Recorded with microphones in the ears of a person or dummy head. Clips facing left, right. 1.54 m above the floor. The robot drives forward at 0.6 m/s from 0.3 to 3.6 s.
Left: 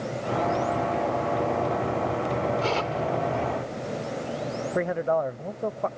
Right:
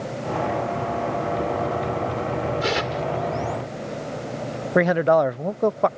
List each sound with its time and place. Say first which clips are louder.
2.6 s tearing paper: right 2 dB; 20° right (ahead or behind)
4.8 s a man speaking: right 8 dB; 75° right (ahead or behind)